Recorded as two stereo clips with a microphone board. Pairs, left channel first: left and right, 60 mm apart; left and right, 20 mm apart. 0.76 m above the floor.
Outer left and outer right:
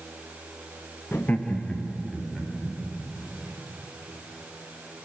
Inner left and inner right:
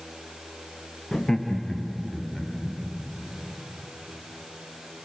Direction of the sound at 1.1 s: 35° left (ahead or behind).